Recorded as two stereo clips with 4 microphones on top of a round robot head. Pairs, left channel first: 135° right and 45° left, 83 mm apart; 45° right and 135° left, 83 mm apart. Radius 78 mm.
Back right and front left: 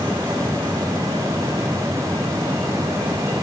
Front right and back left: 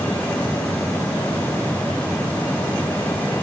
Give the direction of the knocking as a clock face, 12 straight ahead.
I don't hear knocking.